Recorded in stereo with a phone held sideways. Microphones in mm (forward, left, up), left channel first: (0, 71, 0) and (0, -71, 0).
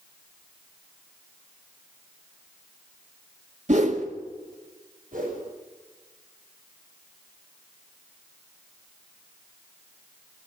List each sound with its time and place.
3.7 s a whoosh: 55° right (ahead or behind), 1.7 m
5.1 s a whoosh: 75° right (ahead or behind), 6.5 m